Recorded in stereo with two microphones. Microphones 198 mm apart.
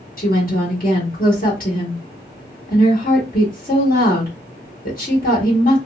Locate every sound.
0.2 s a woman speaking: 45° left (ahead or behind), 1.6 m